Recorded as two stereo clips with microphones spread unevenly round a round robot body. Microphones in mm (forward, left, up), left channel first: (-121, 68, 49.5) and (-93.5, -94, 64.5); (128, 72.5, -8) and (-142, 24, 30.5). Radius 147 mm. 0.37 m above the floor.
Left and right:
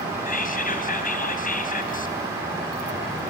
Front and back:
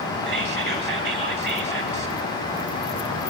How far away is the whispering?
About 2.5 m.